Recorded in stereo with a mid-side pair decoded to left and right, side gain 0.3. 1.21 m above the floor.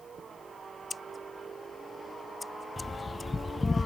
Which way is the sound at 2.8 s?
45° left.